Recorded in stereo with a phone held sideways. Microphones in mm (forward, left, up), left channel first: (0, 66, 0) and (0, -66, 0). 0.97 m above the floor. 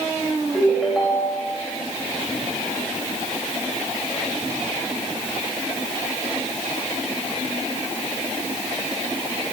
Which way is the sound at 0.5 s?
Centre (ahead or behind).